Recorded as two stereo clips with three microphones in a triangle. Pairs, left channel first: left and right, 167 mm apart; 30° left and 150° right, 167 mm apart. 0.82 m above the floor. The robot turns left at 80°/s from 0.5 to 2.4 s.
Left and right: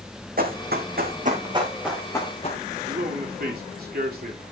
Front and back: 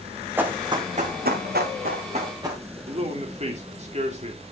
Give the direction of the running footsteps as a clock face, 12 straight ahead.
2 o'clock.